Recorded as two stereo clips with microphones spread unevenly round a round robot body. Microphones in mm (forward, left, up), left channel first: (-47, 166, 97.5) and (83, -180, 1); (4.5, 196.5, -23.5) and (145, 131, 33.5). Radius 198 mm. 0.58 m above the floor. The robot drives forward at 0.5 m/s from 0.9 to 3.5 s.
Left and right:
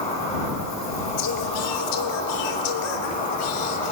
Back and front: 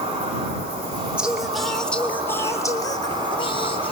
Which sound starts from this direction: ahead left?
An insect, at 0.0 s.